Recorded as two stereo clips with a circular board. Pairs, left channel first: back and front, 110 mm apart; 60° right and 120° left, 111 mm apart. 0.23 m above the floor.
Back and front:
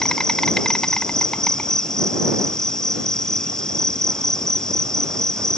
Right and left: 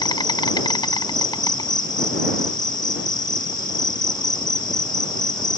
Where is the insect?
95° right.